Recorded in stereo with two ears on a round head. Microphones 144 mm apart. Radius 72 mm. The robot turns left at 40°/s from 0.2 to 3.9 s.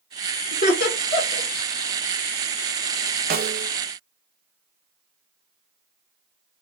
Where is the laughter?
50° left (ahead or behind), 1.3 m; by 1.5 s 85° left, 1.3 m.